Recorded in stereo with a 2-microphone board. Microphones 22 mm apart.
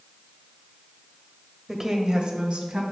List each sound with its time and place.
1.7 s a woman speaking: 10° right (ahead or behind), 1.1 m; by 2.8 s 60° right (ahead or behind), 2 m